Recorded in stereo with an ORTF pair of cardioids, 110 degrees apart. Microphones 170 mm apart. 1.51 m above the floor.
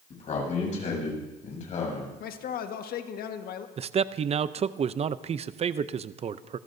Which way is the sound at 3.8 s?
40° right.